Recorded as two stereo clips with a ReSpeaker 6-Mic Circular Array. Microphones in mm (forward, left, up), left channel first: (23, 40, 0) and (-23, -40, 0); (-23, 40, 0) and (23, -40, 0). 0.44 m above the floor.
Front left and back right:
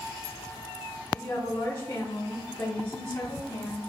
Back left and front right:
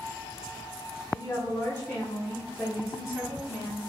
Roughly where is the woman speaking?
Left.